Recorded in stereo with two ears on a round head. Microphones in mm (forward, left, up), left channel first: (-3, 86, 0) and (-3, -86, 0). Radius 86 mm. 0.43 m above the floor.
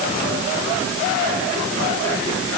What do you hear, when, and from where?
Only background noise.